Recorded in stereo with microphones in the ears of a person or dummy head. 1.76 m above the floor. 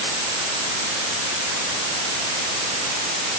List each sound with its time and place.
Only background noise.